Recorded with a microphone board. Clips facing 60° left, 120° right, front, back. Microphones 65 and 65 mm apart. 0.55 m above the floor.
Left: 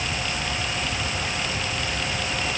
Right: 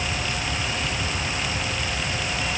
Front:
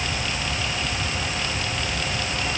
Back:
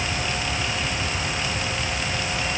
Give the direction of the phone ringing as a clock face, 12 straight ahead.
No phone ringing in this recording.